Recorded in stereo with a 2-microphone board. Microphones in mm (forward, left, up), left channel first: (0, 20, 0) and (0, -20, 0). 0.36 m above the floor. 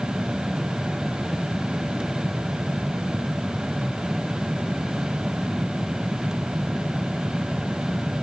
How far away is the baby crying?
I don't hear a baby crying.